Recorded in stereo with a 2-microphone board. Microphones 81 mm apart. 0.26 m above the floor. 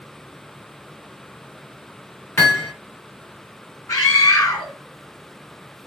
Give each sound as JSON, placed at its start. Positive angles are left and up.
{"t": 2.4, "sound": "hammering", "side_deg": 30, "distance_m": 2.0}
{"t": 3.9, "sound": "a scream", "side_deg": 40, "distance_m": 2.5}